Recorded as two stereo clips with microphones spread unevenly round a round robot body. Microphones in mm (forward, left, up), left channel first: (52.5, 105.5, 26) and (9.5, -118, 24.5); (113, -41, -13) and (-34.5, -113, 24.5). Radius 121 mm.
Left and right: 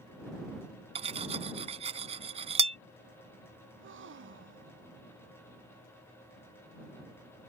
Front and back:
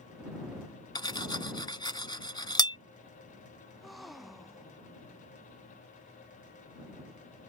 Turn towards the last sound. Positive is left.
turn(degrees=-65)